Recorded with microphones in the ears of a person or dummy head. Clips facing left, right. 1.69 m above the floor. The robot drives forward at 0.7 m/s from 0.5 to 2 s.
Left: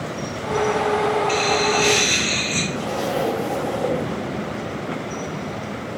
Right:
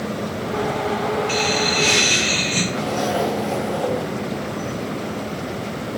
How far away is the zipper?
About 1.9 m.